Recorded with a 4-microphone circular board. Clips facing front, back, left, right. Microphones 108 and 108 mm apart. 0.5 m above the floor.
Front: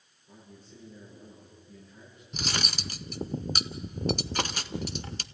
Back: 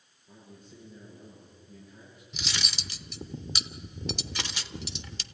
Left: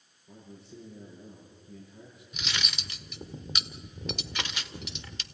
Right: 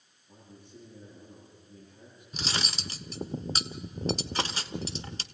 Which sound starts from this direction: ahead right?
Cutlery clinking, at 2.3 s.